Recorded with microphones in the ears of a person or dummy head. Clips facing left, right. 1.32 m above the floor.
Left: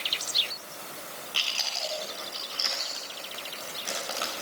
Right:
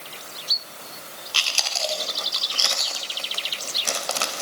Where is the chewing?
75° right (ahead or behind), 3 m.